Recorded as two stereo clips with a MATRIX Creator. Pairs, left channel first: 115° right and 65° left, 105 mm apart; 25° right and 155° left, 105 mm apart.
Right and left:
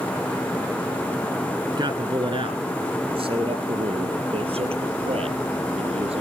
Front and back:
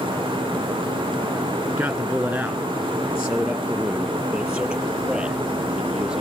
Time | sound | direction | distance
1.7 | a man speaking | 85° left | 1.9 m